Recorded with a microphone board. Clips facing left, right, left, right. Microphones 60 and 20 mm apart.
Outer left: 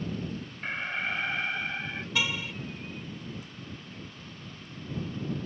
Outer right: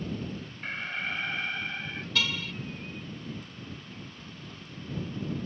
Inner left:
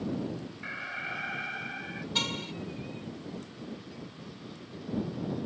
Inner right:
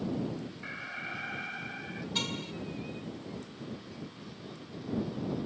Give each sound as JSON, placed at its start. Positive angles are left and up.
{"t": 0.6, "sound": "an alarm", "side_deg": 15}
{"t": 2.1, "sound": "a car horn", "side_deg": 20}